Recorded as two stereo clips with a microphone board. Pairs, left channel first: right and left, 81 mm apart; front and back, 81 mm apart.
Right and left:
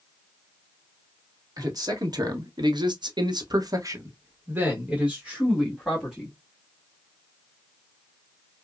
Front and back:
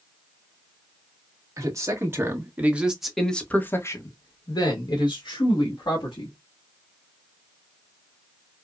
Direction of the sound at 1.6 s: 130° left.